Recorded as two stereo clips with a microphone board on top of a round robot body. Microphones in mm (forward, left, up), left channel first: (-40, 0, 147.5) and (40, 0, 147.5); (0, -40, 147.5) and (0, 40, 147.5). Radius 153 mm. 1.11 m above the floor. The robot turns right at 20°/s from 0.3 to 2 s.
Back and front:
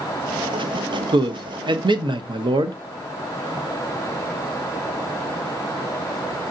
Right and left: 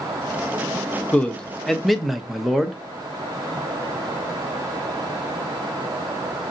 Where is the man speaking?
15° right, 0.7 m; by 2.8 s straight ahead, 0.7 m.